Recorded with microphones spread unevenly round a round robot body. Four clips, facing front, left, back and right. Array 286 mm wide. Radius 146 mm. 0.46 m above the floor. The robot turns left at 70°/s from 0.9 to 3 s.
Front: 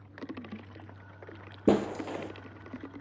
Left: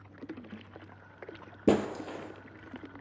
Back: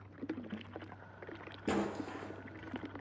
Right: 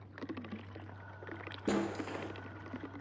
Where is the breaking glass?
40° left, 1.9 m; by 2.3 s 5° right, 1.9 m.